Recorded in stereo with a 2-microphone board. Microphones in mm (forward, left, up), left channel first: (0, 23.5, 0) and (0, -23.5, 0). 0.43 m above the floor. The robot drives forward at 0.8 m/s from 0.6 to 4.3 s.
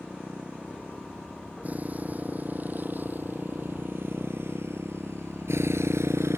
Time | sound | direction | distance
0.0 | a motorcycle | 30° right (ahead or behind) | ?